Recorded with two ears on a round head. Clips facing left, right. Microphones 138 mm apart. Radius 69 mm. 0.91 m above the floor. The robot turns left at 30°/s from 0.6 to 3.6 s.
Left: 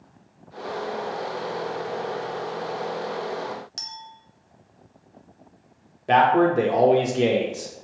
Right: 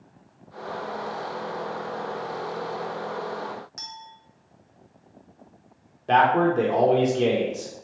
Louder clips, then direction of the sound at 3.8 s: Left 1 dB; 35° left (ahead or behind).